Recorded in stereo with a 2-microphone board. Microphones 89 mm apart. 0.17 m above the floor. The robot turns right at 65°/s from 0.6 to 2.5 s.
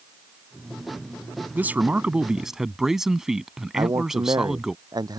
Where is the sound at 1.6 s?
20° right (ahead or behind); by 4.8 s 5° right (ahead or behind).